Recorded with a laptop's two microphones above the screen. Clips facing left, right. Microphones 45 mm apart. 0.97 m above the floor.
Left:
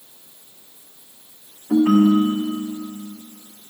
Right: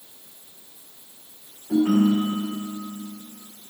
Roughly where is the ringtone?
Left.